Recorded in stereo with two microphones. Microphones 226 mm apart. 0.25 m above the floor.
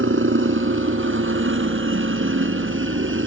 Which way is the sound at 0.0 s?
60° right (ahead or behind).